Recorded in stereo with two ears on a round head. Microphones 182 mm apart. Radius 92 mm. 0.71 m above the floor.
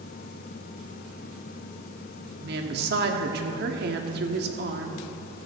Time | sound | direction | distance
2.4 | a woman speaking | 50° right (ahead or behind) | 1.2 m